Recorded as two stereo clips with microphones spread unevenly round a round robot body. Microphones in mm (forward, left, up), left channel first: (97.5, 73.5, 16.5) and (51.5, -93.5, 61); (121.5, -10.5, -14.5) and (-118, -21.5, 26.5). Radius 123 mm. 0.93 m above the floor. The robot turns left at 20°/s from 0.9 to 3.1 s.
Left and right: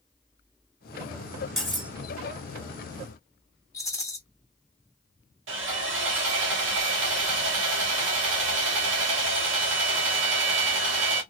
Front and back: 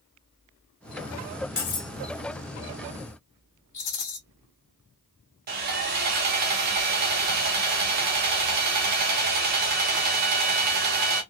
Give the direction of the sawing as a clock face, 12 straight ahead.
4 o'clock.